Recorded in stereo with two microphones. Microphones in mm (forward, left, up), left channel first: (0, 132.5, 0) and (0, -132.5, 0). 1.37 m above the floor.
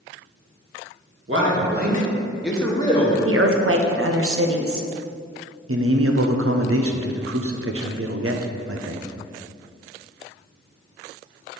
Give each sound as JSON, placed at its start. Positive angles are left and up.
{"t": 1.3, "sound": "a man speaking", "side_deg": -60, "distance_m": 1.5}
{"t": 3.2, "sound": "a woman speaking", "side_deg": -60, "distance_m": 0.7}
{"t": 5.7, "sound": "a man speaking", "side_deg": -60, "distance_m": 0.6}